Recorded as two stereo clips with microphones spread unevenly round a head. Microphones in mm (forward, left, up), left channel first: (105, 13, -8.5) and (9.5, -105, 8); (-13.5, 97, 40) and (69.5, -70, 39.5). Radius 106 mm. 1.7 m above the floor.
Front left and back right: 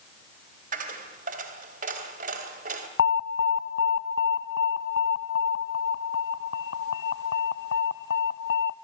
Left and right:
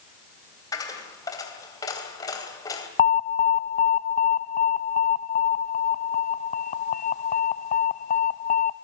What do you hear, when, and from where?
0.7 s a dropped coin: 170° right, 3 m
3.0 s an alarm: 65° left, 0.8 m